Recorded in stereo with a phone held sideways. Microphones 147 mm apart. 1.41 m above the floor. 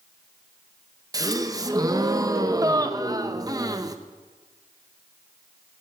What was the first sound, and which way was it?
A gasp, 25° right (ahead or behind).